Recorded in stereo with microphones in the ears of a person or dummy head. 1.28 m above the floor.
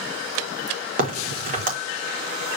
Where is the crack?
45° right (ahead or behind), 1.5 m.